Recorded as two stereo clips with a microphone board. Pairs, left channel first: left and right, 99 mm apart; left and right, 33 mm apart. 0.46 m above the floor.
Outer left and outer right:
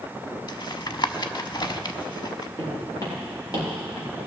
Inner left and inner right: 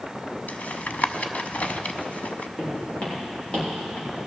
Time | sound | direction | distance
0.5 | tapping | 50° left (ahead or behind) | 0.7 m
2.6 | footsteps | 35° left (ahead or behind) | 6 m